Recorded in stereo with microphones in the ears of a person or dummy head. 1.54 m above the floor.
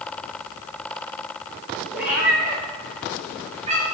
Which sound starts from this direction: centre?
A cat meowing, at 1.9 s.